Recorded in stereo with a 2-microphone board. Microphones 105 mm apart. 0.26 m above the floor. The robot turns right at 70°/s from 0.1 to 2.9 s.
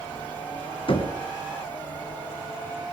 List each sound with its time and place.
0.9 s knocking: 55° left (ahead or behind), 2.5 m; by 1.1 s 40° left (ahead or behind), 2.5 m